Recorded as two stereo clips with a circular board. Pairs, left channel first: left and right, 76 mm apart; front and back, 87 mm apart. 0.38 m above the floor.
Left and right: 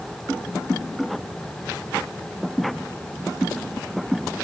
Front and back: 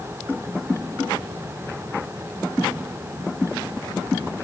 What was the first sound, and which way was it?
Only background noise.